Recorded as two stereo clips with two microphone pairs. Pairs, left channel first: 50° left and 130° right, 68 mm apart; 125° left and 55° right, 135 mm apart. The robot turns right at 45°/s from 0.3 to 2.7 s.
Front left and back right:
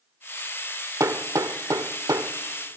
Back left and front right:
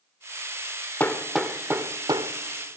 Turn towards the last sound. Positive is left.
turn(degrees=-85)